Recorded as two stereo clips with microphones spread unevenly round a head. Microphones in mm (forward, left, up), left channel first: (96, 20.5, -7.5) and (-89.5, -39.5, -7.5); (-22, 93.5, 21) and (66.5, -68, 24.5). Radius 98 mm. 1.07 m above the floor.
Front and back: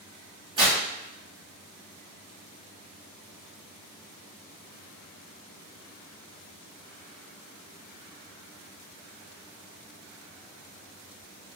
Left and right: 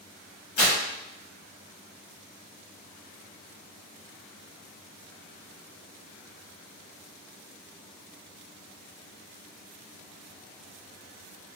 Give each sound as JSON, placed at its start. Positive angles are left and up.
{"t": 0.6, "sound": "tearing paper", "azimuth_deg": 130, "distance_m": 1.6}